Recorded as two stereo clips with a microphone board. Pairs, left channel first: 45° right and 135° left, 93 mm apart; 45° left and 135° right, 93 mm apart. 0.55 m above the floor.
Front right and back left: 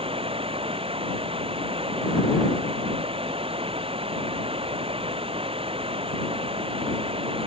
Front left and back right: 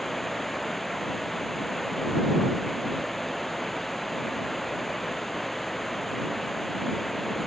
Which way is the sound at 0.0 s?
135° left.